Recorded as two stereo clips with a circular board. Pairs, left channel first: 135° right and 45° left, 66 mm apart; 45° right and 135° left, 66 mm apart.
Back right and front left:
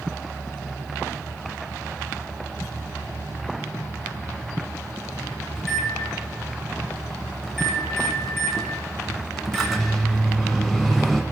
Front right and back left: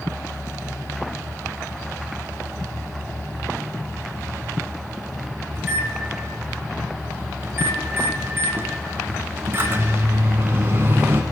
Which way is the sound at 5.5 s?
140° left.